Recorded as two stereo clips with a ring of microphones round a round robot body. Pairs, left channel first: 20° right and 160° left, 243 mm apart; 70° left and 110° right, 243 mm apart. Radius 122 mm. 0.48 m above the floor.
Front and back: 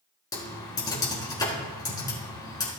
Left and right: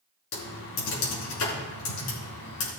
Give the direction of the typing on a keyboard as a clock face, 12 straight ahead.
10 o'clock.